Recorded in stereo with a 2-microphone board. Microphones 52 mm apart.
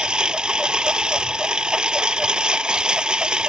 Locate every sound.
0.0 s a lawn mower: 15° right (ahead or behind)